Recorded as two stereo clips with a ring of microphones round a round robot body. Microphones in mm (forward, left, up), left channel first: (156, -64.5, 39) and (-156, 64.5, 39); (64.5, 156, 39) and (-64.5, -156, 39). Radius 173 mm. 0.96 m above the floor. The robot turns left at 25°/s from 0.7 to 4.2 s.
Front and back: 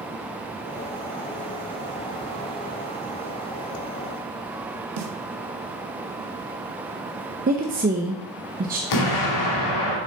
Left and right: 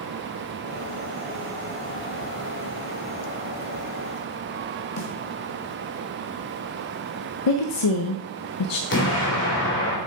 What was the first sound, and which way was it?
A snare drum, 115° left.